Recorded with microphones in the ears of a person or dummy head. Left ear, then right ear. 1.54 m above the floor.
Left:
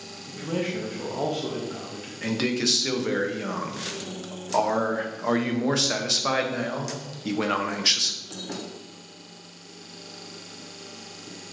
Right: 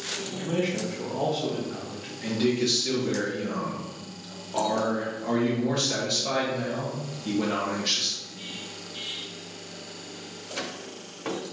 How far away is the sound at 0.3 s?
About 0.6 m.